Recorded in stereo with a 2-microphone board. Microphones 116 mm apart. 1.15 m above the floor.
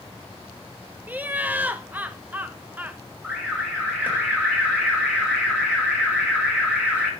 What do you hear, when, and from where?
1.1 s laughter: 15° right (ahead or behind), 0.6 m
3.2 s an alarm: 10° right (ahead or behind), 4.5 m